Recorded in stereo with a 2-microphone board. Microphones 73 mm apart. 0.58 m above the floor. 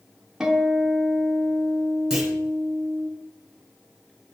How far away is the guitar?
About 1.3 m.